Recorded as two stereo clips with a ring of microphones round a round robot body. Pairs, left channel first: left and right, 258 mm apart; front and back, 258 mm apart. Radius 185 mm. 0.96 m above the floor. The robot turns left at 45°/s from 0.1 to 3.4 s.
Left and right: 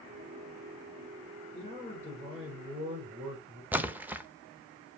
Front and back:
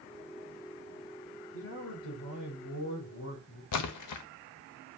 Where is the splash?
5° right, 0.6 m.